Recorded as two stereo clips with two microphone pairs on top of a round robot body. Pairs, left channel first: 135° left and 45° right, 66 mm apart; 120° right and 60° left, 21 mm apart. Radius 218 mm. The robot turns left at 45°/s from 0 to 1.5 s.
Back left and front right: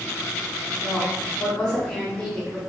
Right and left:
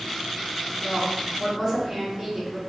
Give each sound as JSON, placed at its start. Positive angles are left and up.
{"t": 0.8, "sound": "a woman speaking", "azimuth_deg": 110, "distance_m": 1.6}